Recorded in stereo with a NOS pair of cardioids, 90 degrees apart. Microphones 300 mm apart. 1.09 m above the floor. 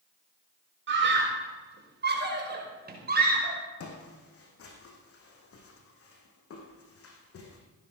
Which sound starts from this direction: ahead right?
A scream, at 0.9 s.